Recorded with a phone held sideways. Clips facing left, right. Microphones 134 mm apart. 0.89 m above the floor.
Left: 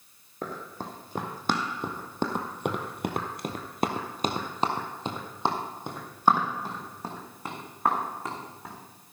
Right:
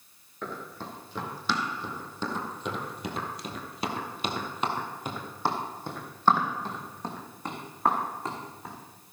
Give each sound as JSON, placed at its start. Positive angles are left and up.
{"t": 0.4, "sound": "running footsteps", "side_deg": 40, "distance_m": 3.0}